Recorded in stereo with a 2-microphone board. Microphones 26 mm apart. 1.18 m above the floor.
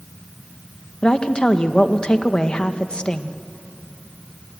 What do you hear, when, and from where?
1.0 s a woman speaking: 35° left (ahead or behind), 1.0 m